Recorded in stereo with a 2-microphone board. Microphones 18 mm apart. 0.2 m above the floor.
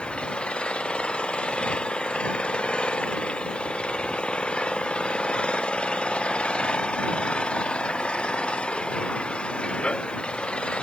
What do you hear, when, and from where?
0.0 s an engine running: 75° left (ahead or behind)